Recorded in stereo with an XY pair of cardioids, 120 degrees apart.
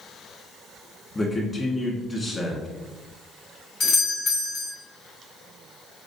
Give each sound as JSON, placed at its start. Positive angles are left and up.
{"t": 1.1, "sound": "a man speaking", "azimuth_deg": 15, "distance_m": 1.4}
{"t": 3.8, "sound": "a doorbell", "azimuth_deg": 65, "distance_m": 2.0}